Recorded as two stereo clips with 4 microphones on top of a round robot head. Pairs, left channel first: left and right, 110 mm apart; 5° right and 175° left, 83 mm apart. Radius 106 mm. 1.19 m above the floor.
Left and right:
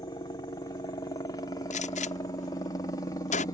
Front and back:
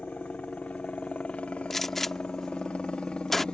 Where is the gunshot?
85° left.